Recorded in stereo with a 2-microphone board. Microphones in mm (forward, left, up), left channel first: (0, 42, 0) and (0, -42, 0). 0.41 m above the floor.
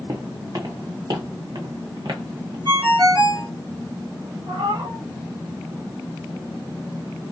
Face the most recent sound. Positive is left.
turn(degrees=-80)